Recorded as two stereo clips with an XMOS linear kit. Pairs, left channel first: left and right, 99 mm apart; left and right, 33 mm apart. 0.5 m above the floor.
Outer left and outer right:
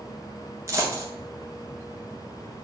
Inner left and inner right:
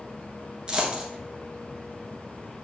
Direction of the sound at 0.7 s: 30° right (ahead or behind).